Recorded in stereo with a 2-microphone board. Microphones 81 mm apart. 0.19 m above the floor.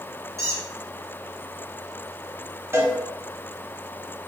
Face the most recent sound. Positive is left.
turn(degrees=-35)  # may be behind; listen again after turning